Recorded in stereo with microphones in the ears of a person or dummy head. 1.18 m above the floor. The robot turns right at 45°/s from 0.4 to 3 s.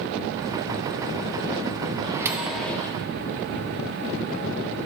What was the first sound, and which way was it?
A microwave, 25° right.